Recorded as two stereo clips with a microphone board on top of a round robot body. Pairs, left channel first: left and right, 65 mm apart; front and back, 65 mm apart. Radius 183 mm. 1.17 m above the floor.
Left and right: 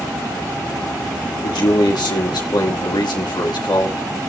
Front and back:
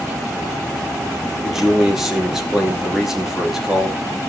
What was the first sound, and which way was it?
A man speaking, 95° left.